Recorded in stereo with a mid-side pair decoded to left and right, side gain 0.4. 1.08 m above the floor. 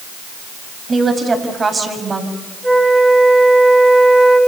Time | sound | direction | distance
0.9 | a woman speaking | 35° right | 6 m
2.6 | a flute | 20° right | 5 m